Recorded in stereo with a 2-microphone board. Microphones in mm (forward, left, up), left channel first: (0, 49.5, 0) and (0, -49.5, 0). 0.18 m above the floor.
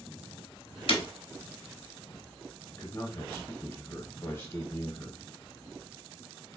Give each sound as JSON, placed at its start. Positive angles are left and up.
{"t": 0.9, "sound": "breaking glass", "side_deg": 65, "distance_m": 0.8}
{"t": 2.7, "sound": "a man speaking", "side_deg": 25, "distance_m": 1.3}